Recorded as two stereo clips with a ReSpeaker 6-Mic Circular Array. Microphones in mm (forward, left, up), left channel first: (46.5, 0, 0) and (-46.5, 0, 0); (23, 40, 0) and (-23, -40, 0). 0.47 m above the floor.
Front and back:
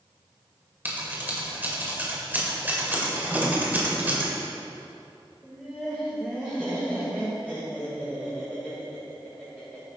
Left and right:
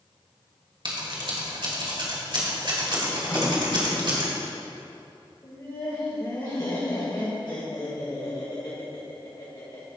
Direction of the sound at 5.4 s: 105° left.